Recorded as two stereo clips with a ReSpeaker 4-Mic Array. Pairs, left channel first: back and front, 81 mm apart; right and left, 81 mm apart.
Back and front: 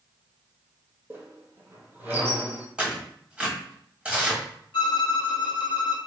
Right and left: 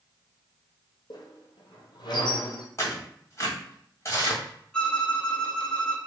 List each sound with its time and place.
1.1 s a squeak: 65° right, 0.8 m
2.8 s tearing paper: 70° right, 1.4 m
4.7 s a violin: 170° right, 0.6 m